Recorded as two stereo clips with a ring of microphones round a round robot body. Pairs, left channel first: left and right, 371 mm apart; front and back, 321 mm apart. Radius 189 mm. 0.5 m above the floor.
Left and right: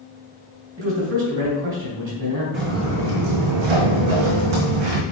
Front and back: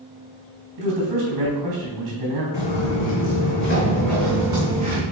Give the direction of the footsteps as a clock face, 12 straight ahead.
1 o'clock.